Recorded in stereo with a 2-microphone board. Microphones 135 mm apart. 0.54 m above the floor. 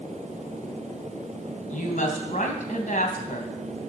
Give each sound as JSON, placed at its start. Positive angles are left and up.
{"t": 1.7, "sound": "a woman speaking", "side_deg": 70, "distance_m": 3.0}